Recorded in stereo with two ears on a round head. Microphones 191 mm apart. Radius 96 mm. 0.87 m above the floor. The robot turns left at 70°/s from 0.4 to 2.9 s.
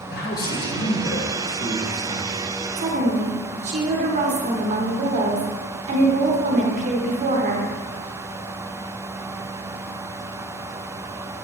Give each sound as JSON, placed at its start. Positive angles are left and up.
{"t": 0.1, "sound": "a man speaking", "azimuth_deg": 115, "distance_m": 1.0}
{"t": 2.8, "sound": "a woman speaking", "side_deg": -30, "distance_m": 0.7}